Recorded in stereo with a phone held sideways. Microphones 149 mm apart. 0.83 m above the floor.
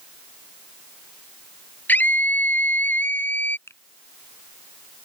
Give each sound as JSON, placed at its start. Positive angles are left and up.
{"t": 1.9, "sound": "a scream", "side_deg": 10}
{"t": 3.7, "sound": "a finger snap", "side_deg": 15}